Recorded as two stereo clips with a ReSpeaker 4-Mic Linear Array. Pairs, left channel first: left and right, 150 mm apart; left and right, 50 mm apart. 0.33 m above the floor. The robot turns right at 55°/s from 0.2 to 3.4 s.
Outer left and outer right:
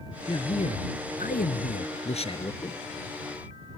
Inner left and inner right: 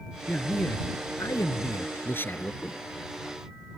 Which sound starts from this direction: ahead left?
A man speaking, at 0.3 s.